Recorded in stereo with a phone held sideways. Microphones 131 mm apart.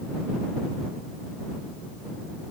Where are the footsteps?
No footsteps in this recording.